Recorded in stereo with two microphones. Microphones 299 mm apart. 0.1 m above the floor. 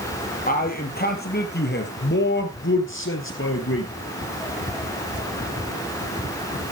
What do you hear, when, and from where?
0.5 s a man speaking: 30° left (ahead or behind), 3 m; by 3.9 s 45° left (ahead or behind), 2 m